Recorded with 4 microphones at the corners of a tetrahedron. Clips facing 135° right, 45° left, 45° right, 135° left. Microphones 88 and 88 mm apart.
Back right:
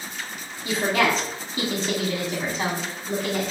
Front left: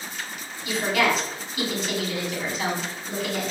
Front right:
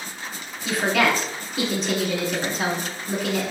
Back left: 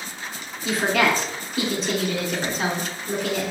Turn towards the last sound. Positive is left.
turn(degrees=-135)